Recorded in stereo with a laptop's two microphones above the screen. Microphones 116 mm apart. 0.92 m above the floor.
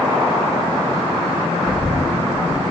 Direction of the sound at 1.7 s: 60° right (ahead or behind).